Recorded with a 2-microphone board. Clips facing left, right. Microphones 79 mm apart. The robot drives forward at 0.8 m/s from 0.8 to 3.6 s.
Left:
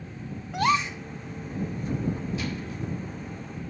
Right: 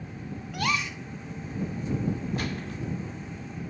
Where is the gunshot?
55° right (ahead or behind), 2 m; by 2.8 s 60° right (ahead or behind), 1.9 m.